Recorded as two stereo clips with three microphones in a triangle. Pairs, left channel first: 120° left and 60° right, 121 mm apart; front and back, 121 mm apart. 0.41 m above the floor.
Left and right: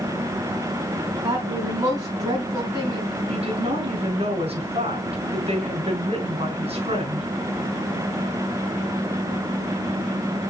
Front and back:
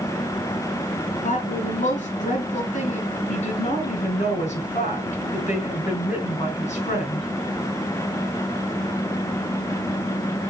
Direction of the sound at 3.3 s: 20° right.